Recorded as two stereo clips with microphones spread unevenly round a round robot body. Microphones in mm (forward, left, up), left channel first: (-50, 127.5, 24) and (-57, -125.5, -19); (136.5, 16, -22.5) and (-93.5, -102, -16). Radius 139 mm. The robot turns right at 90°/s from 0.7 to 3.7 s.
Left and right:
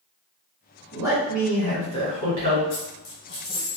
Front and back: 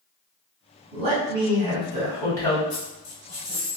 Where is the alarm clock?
No alarm clock in this recording.